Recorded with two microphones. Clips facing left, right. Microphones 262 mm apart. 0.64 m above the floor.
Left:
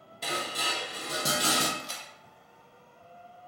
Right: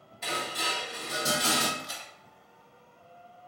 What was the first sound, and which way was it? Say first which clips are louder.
Dishes clattering: even; 40° left (ahead or behind).